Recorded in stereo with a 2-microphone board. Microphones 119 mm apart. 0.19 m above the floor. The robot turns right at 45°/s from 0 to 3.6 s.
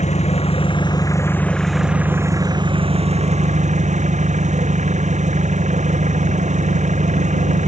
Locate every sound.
0.0 s an engine running: 100° left; by 7.7 s 95° right